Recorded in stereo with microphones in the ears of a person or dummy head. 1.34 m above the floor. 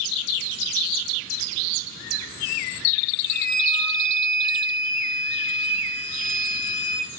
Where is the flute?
60° right (ahead or behind), 6 m.